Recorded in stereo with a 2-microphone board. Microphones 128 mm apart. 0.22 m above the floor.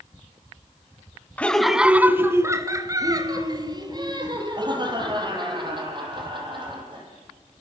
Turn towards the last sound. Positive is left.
turn(degrees=-40)  # may be behind; listen again after turning